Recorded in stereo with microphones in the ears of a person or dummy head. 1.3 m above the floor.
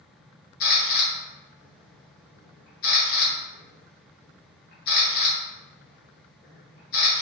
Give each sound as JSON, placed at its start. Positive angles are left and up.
{"t": 0.6, "sound": "a camera shutter", "side_deg": 45, "distance_m": 0.8}